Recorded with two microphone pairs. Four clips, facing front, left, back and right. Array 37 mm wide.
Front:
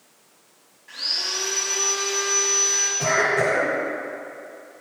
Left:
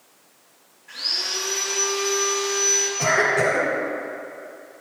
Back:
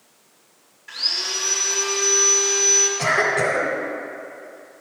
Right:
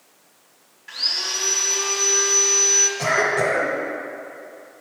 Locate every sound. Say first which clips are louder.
0.9 s sawing: right 2 dB, back 2 dB; 115° right, 2.0 m
3.0 s a cough: left 2 dB, front 1 dB; 170° right, 1.5 m